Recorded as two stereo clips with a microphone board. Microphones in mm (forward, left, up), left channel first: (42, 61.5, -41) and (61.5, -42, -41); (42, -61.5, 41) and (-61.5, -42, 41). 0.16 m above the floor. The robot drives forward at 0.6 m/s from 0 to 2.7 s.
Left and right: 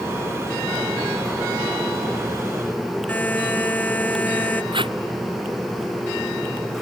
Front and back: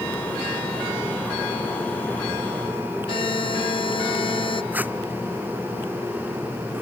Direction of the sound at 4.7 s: 115° right.